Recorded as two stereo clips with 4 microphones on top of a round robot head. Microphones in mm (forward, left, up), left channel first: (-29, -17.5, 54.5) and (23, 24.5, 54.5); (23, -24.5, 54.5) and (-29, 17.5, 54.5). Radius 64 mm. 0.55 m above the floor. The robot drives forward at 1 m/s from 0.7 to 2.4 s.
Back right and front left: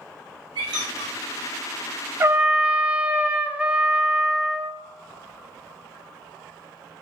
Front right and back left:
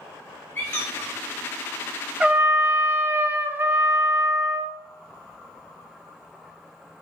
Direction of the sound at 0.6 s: 20° left.